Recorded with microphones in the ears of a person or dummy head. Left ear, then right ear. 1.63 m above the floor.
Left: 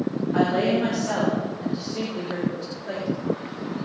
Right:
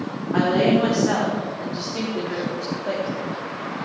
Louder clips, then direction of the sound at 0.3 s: Right 3 dB; 35° right (ahead or behind).